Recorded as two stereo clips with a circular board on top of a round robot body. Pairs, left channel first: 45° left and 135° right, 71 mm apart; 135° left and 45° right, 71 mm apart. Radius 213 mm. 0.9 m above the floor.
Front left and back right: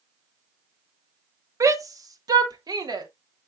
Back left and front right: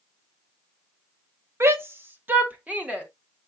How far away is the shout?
About 1.5 m.